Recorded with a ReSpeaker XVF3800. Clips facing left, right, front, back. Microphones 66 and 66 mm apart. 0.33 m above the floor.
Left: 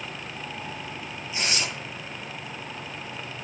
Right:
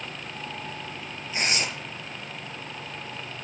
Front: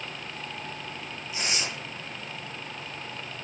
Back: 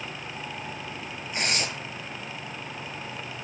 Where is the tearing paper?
140° right, 8.5 m.